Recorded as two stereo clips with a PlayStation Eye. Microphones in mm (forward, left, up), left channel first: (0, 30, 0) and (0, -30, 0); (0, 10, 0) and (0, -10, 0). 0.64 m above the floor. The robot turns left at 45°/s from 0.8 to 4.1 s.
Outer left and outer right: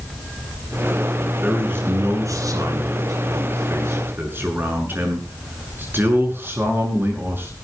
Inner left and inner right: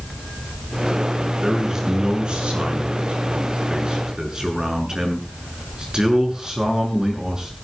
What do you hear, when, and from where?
1.4 s a man speaking: 25° right, 7 m; by 7.6 s 145° right, 7 m